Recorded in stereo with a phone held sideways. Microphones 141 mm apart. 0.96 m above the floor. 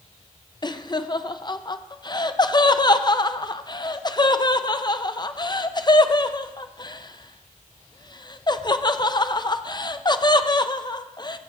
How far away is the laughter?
About 0.5 m.